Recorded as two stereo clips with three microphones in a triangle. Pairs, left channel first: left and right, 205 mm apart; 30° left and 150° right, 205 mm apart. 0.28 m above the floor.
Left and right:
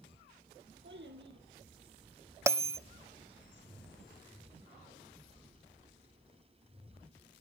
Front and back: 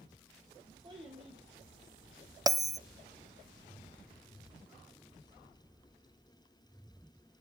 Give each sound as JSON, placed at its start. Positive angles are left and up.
{"t": 0.8, "sound": "a child speaking", "azimuth_deg": -85, "distance_m": 2.5}
{"t": 2.5, "sound": "a bell", "azimuth_deg": -130, "distance_m": 0.6}